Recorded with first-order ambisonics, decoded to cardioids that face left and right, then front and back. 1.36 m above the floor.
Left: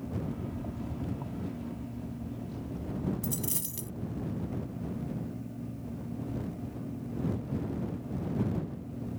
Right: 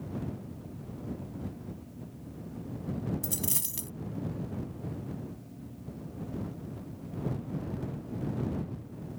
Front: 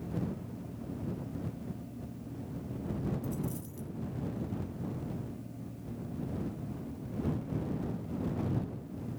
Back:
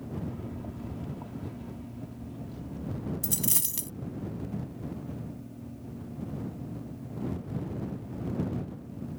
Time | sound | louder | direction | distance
0.3 | a rattle | left 5 dB, back 3 dB | 130° left | ?
3.2 | a dropped coin | right 1 dB, back 7 dB | 165° right | ?